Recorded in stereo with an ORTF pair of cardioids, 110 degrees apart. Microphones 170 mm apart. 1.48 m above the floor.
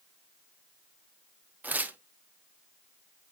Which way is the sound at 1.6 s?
10° right.